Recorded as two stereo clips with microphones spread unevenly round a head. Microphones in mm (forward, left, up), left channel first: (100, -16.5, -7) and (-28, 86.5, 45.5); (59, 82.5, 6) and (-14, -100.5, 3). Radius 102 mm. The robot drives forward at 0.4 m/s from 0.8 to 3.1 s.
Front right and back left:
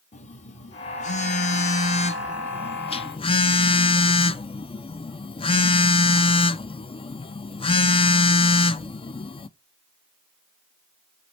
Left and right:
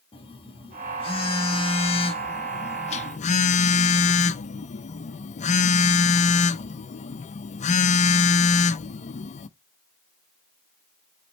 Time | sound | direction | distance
0.1 | a phone buzzing | 5° left | 1.4 m